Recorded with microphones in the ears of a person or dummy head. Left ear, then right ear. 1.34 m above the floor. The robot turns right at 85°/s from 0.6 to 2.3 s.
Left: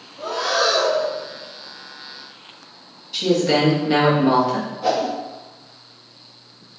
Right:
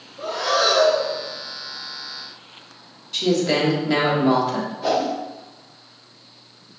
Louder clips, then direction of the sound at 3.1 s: Left 2 dB; centre (ahead or behind).